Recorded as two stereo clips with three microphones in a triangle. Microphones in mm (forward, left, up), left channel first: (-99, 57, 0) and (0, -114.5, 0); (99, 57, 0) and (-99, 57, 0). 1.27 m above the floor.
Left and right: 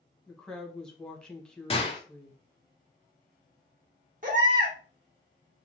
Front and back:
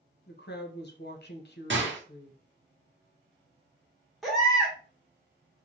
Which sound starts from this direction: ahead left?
A woman speaking, at 0.3 s.